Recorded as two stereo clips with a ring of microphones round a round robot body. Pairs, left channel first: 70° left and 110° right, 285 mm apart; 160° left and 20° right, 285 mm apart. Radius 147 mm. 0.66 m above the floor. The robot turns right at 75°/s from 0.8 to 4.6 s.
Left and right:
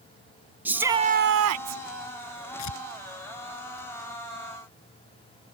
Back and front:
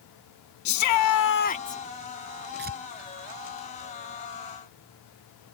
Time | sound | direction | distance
0.7 | a shout | 165° left | ?
2.6 | tearing paper | 30° left | ?